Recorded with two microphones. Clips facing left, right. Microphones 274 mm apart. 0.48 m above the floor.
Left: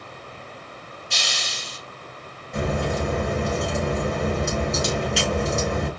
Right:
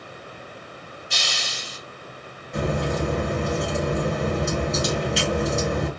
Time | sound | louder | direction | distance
1.1 | a hiss | even | centre (ahead or behind) | 2 m
2.5 | a crack | even | centre (ahead or behind) | 2.5 m